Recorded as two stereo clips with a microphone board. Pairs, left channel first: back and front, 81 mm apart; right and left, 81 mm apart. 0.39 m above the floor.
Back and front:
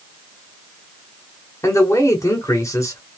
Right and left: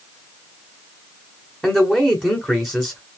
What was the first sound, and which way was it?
A man speaking, straight behind.